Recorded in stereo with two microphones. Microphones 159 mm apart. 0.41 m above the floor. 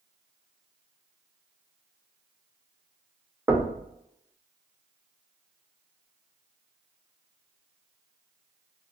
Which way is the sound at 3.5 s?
15° right (ahead or behind).